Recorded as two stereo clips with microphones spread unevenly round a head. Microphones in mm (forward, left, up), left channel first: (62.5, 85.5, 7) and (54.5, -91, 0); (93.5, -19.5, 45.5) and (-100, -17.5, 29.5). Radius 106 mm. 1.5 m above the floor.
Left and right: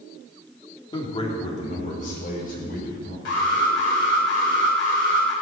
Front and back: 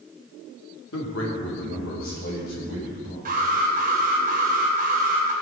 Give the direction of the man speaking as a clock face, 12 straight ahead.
11 o'clock.